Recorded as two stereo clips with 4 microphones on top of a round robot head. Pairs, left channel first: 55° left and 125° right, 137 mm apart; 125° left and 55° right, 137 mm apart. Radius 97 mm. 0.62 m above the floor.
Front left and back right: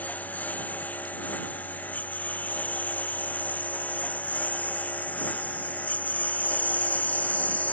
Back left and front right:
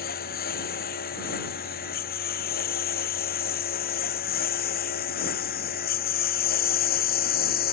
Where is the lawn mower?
130° left; by 7.7 s 135° left.